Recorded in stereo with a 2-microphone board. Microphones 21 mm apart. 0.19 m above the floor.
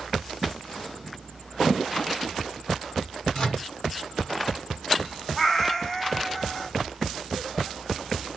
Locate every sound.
3.3 s a microwave: 40° left (ahead or behind), 2.0 m
5.4 s a cat meowing: 15° left (ahead or behind), 0.6 m